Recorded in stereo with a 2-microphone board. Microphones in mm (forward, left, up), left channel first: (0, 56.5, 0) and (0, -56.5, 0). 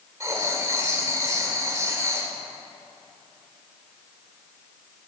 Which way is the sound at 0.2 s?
30° right (ahead or behind).